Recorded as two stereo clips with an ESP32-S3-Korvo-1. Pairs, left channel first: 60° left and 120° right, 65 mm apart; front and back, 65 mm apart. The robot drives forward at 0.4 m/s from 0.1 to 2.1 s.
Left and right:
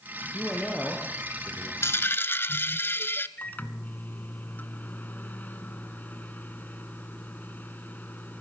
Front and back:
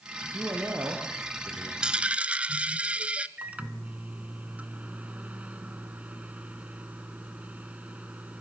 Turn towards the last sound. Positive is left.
turn(degrees=115)